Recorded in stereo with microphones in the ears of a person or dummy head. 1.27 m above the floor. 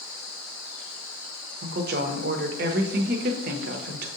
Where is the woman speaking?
50° right (ahead or behind), 0.6 m.